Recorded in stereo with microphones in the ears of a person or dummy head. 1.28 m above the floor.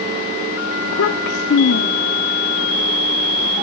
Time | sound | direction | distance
0.8 | a child speaking | 55° left (ahead or behind) | ?